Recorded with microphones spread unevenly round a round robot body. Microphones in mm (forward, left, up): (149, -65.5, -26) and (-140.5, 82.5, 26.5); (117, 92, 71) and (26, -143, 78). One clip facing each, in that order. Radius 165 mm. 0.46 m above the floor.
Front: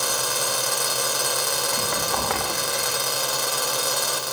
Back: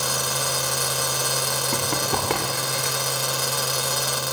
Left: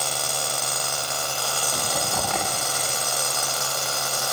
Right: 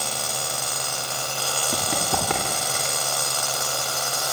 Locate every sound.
1.7 s running footsteps: 150° right, 8.5 m; by 3.0 s 145° right, 10 m